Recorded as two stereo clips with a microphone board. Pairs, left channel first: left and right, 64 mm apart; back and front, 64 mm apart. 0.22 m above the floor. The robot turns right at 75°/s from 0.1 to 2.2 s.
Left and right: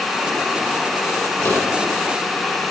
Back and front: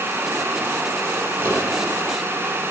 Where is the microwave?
50° left, 4.5 m; by 1.7 s 70° left, 4.5 m.